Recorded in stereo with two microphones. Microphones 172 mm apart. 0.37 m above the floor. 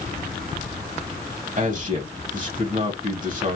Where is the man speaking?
50° right (ahead or behind), 2.0 m.